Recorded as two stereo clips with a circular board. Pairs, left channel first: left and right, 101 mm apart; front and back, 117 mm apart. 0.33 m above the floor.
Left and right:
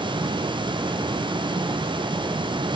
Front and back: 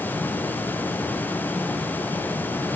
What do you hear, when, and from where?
Only background noise.